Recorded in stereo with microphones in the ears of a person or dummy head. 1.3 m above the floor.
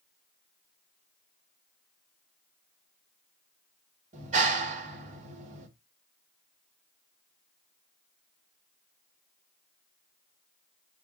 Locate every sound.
4.1 s a clap: 50° right (ahead or behind), 3.5 m